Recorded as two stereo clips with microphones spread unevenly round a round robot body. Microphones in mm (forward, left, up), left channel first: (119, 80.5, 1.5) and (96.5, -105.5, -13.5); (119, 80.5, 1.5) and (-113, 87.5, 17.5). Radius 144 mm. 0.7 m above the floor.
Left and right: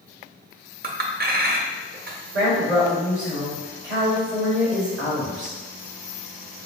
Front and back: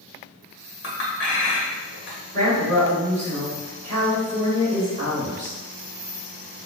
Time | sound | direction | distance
0.8 | a clink | 55° right | 0.7 m
2.3 | a woman speaking | 115° right | 1.8 m